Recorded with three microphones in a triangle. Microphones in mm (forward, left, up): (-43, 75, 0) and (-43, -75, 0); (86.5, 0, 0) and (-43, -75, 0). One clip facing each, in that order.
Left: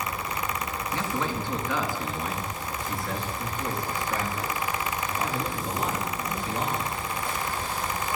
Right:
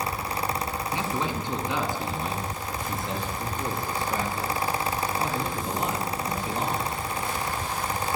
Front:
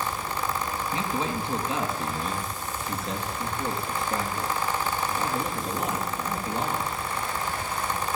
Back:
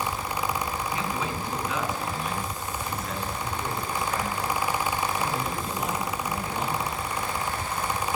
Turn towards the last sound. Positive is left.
turn(degrees=-30)